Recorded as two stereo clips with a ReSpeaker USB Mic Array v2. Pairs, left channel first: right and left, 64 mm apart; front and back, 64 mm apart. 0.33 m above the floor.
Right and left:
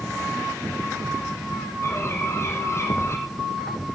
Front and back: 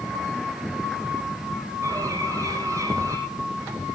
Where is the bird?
140° right, 4.5 m.